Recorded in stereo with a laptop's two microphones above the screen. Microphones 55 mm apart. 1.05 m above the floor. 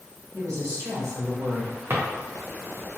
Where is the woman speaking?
70° right (ahead or behind), 1.4 m; by 1.8 s 40° right (ahead or behind), 0.6 m.